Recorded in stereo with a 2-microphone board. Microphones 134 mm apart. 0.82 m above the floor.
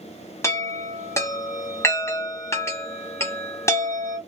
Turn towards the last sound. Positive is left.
turn(degrees=20)  # may be behind; listen again after turning